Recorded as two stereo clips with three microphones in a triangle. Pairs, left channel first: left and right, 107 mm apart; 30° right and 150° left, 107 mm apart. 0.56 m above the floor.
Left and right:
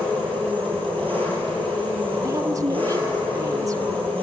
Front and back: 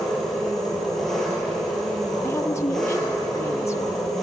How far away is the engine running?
About 8 m.